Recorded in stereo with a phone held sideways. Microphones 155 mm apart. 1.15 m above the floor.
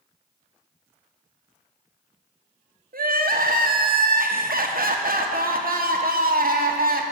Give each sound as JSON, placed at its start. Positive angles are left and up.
{"t": 2.9, "sound": "crying", "side_deg": -70, "distance_m": 0.7}